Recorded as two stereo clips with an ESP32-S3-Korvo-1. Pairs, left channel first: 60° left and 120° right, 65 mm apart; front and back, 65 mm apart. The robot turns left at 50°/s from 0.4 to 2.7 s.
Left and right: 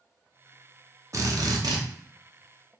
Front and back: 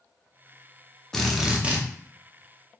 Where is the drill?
80° right, 0.7 m; by 1.8 s 115° right, 0.7 m.